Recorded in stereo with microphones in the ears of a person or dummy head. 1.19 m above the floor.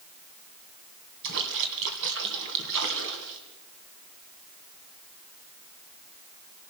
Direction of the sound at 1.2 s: 70° right (ahead or behind).